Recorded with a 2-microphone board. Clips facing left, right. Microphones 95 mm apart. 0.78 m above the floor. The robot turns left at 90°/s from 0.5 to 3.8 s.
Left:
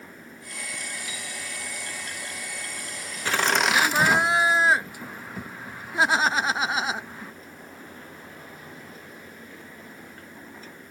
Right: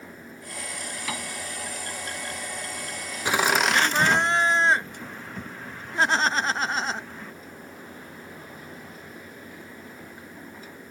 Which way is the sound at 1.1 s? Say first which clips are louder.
Right 5 dB; 80° right.